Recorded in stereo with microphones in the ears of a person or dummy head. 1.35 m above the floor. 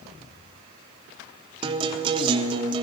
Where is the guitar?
30° right (ahead or behind), 1.5 m.